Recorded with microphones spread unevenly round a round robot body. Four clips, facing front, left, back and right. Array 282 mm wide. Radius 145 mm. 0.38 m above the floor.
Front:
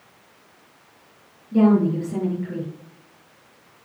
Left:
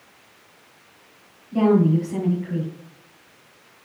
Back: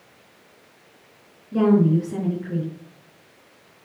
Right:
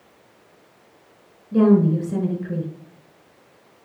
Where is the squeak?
No squeak in this recording.